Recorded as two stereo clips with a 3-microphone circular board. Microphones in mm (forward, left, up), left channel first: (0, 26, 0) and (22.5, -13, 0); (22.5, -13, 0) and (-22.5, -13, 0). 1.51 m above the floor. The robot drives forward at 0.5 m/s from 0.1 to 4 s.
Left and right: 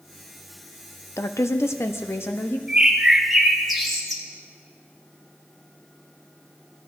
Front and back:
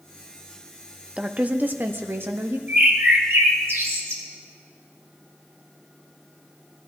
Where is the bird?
130° right, 0.9 m; by 4.2 s 155° right, 1.4 m.